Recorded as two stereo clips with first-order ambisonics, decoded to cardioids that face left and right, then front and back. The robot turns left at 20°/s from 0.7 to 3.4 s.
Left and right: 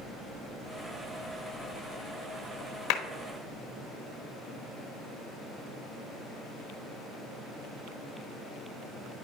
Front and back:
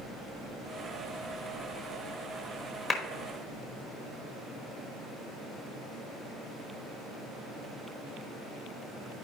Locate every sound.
2.9 s a clap: 65° left, 1.1 m